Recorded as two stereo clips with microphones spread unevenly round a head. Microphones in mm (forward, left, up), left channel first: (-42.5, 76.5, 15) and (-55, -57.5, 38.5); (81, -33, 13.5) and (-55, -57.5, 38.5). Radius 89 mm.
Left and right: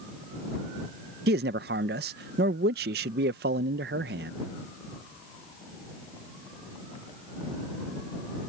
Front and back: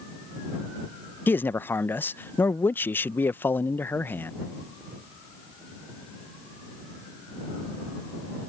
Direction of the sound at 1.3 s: 65° right.